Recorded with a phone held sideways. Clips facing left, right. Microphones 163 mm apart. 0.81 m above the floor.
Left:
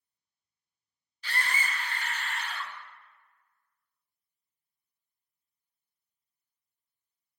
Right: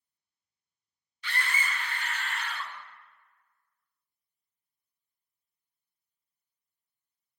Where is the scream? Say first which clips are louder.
Even; 35° left (ahead or behind), 0.6 m.